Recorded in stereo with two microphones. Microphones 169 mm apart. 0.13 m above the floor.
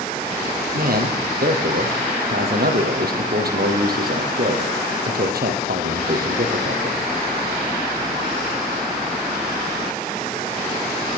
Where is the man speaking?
65° right (ahead or behind), 4 m.